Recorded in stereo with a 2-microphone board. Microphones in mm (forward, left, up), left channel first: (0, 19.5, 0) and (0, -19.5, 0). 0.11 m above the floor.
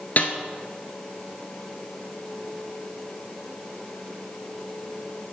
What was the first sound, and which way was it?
A snare drum, 45° left (ahead or behind).